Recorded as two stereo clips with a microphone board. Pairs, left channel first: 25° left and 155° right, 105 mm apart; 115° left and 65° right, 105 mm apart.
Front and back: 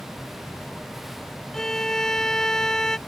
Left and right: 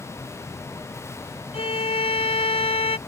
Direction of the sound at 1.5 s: 105° left.